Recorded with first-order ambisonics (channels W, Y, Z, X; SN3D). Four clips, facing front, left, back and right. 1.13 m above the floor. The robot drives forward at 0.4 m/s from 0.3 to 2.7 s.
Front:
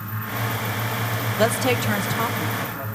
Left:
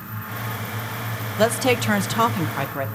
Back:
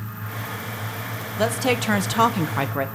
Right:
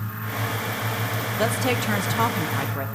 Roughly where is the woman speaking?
Ahead left.